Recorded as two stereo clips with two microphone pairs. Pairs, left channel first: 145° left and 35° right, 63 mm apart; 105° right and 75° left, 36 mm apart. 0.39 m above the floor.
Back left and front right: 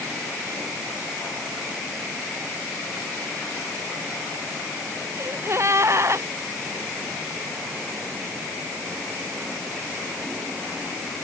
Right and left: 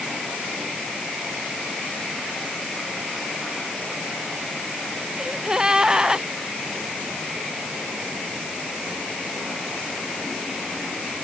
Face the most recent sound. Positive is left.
turn(degrees=5)